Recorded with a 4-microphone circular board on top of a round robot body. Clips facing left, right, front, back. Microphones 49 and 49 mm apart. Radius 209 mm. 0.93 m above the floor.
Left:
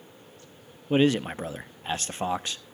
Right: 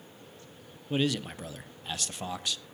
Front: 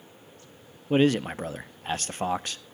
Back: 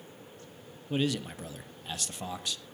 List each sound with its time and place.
0.9 s a man speaking: 40° left, 0.8 m